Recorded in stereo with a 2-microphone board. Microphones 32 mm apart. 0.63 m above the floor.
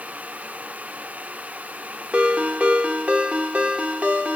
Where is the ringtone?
45° right (ahead or behind), 1.0 m.